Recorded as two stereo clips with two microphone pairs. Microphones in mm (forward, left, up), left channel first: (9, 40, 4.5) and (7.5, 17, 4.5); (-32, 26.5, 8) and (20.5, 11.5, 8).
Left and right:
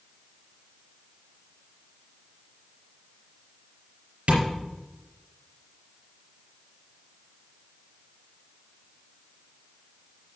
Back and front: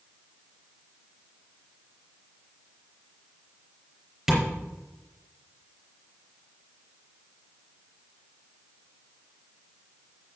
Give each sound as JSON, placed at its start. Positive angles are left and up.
{"t": 4.3, "sound": "tapping", "azimuth_deg": -95, "distance_m": 4.5}